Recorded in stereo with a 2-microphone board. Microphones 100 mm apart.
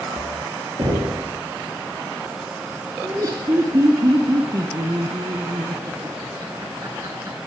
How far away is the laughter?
About 1.3 m.